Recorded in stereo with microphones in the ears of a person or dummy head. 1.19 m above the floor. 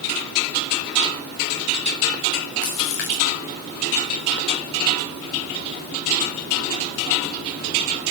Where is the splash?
60° left (ahead or behind), 2.5 m.